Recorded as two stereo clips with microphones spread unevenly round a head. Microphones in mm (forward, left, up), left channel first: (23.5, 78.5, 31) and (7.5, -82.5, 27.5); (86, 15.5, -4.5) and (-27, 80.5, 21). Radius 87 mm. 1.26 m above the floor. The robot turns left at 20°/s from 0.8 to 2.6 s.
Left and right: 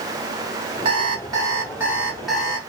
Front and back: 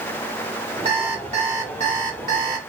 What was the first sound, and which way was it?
An alarm clock, 155° right.